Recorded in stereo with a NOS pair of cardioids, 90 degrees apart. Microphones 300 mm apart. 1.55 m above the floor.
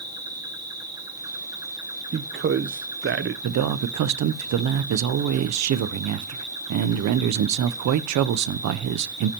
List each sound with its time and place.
0.0 s an insect: 15° right, 1.8 m
2.1 s a man speaking: 40° right, 0.9 m
3.4 s a man speaking: 65° right, 0.8 m